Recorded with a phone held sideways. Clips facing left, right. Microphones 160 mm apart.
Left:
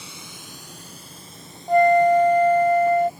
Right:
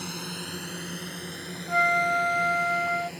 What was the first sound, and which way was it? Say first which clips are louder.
A drone: right 7 dB; 65° right (ahead or behind).